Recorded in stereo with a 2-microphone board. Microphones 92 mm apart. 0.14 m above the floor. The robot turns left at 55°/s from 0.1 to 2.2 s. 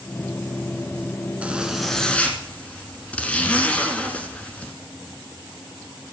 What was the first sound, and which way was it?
A zipper, 160° right.